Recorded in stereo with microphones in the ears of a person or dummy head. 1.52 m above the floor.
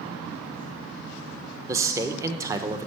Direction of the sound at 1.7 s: 15° right (ahead or behind).